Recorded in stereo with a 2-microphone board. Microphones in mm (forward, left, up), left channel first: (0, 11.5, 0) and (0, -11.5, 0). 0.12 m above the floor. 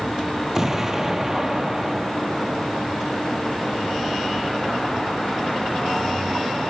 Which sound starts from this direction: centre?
An explosion, at 0.6 s.